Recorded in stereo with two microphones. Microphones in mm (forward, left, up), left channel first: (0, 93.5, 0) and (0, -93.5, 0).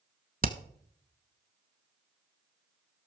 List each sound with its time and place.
0.4 s hammering: 50° right (ahead or behind), 0.7 m